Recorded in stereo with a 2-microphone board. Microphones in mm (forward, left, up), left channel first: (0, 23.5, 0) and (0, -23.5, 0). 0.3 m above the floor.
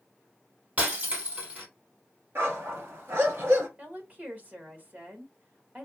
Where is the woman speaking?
35° right (ahead or behind), 1.5 m.